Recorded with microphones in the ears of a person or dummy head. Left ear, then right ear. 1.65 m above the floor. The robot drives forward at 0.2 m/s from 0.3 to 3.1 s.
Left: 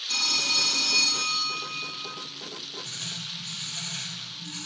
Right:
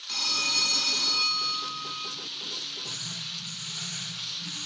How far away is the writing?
About 1.9 m.